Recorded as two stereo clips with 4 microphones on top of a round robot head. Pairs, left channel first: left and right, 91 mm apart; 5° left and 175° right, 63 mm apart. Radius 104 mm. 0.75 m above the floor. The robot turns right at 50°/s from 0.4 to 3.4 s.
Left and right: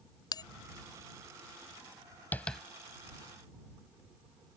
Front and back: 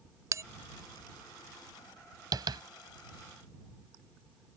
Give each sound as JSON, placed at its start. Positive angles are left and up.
{"t": 0.3, "sound": "a bell", "azimuth_deg": 140}
{"t": 2.3, "sound": "tapping", "azimuth_deg": 165}